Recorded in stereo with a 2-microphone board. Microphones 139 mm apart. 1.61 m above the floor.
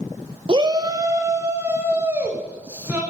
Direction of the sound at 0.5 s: 35° right (ahead or behind).